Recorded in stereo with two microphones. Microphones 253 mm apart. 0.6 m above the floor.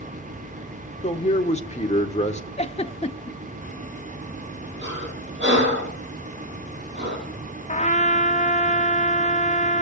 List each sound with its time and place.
1.0 s a man speaking: 25° left (ahead or behind), 1.8 m
2.6 s a giggle: 25° left (ahead or behind), 0.8 m
4.8 s breathing: 40° right (ahead or behind), 8 m
7.7 s a trumpet: 25° left (ahead or behind), 0.7 m